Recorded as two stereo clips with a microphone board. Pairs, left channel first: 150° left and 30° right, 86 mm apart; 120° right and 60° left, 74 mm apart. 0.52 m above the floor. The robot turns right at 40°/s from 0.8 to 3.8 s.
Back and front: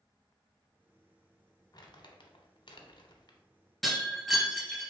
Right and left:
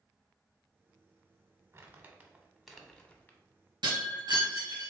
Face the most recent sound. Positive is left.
turn(degrees=60)